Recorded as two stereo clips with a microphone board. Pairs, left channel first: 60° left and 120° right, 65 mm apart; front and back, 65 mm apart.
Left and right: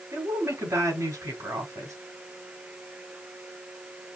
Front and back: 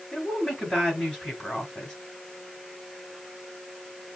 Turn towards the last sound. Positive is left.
turn(degrees=-85)